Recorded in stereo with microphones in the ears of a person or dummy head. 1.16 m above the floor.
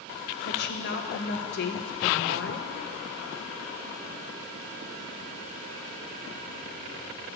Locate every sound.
0.4 s a woman speaking: 60° left (ahead or behind), 1.0 m